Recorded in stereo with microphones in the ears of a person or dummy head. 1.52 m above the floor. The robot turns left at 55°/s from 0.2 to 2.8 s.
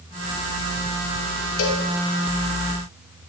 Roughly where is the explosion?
I don't hear an explosion.